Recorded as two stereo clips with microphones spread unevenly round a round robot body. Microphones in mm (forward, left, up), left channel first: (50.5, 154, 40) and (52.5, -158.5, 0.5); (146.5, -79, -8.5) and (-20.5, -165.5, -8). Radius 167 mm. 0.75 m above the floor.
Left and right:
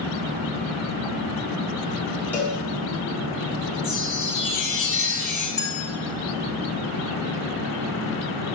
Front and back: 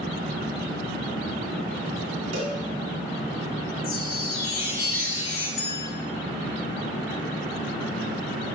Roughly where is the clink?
Ahead.